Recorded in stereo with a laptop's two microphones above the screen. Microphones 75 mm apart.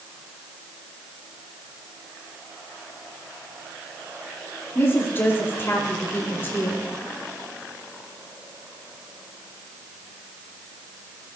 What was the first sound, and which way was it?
A woman speaking, 30° left (ahead or behind).